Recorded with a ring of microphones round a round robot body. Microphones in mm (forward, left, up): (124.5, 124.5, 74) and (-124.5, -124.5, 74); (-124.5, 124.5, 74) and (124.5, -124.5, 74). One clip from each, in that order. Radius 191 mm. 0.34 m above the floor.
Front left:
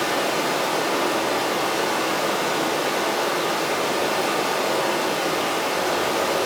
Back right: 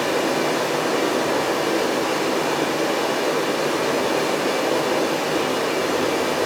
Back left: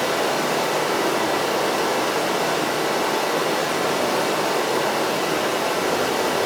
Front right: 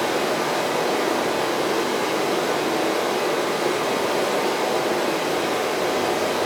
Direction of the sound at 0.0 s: 70° left.